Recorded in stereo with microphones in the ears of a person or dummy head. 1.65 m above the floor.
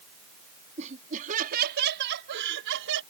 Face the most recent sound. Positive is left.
turn(degrees=-75)  # may be behind; listen again after turning